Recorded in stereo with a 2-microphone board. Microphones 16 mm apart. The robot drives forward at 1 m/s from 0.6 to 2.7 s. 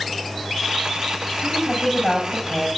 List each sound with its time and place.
1.4 s a woman speaking: 15° left (ahead or behind), 8 m; by 2.7 s 10° left (ahead or behind), 9.5 m